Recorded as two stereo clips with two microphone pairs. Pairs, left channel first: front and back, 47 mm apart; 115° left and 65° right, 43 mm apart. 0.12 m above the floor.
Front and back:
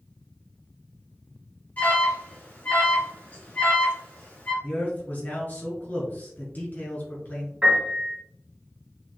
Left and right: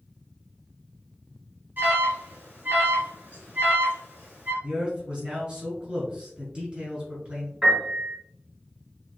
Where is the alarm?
45° right, 1.7 m.